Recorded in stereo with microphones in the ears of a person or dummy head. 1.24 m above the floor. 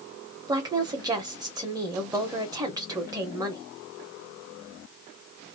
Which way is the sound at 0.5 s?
15° right (ahead or behind).